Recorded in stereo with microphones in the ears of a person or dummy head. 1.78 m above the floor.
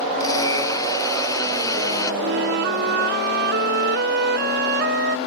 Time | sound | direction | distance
0.2 | a blender | 20° left (ahead or behind) | ?
2.2 | a flute | 60° right (ahead or behind) | ?